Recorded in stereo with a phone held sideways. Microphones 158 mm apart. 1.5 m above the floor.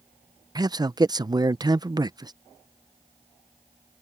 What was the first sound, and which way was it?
A man speaking, 25° right (ahead or behind).